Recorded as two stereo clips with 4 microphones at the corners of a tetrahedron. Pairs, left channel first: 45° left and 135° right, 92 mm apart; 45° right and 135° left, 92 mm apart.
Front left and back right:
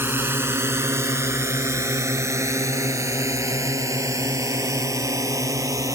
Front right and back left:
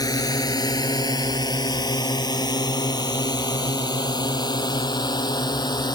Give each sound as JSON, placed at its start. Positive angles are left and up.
{"t": 0.0, "sound": "a drone", "azimuth_deg": -75}